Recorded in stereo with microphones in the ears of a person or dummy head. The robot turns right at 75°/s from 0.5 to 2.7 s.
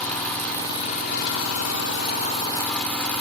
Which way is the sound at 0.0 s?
5° left.